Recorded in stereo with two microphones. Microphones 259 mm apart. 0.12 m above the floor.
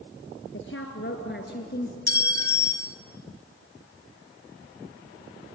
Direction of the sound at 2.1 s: 35° right (ahead or behind).